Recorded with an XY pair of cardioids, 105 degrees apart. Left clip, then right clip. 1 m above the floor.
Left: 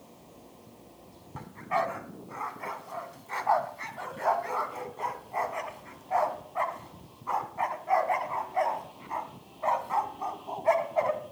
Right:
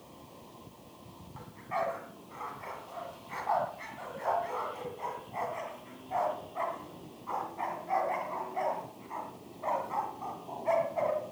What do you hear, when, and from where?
1.4 s a dog barking: 45° left, 2.5 m